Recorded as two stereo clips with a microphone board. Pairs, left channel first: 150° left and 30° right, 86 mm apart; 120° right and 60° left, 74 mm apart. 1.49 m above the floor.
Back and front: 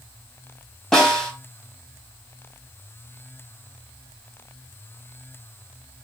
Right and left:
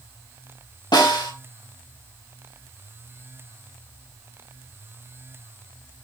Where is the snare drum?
125° right, 4 m.